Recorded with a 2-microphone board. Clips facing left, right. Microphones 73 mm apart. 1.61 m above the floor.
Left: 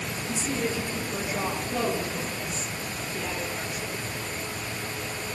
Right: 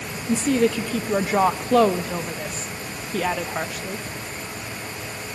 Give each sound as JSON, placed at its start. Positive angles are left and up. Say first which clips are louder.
{"t": 0.3, "sound": "a woman speaking", "louder": "right 10 dB", "side_deg": -80, "distance_m": 1.2}